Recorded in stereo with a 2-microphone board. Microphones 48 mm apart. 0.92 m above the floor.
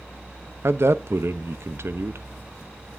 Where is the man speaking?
60° right (ahead or behind), 0.6 m.